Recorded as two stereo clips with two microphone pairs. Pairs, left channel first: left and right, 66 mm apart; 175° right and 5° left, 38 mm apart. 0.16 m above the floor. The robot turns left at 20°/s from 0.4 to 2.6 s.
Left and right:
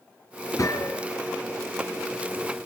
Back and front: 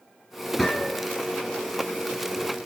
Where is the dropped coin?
I don't hear a dropped coin.